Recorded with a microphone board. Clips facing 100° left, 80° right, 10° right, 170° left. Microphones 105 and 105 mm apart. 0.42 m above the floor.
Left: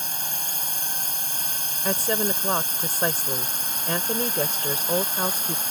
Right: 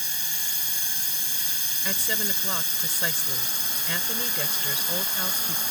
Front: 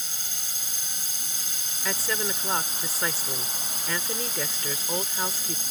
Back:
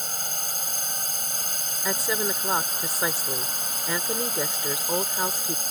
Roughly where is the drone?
Behind left.